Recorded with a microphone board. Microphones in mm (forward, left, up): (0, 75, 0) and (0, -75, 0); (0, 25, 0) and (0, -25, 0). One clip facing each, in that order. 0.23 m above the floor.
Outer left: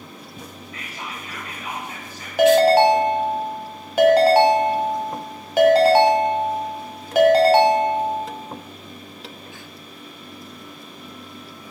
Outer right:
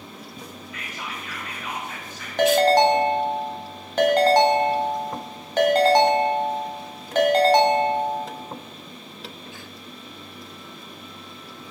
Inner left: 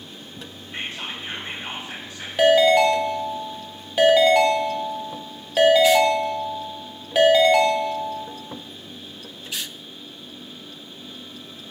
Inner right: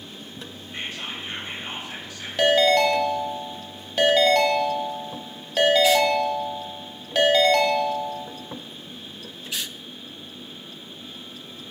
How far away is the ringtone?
About 0.5 m.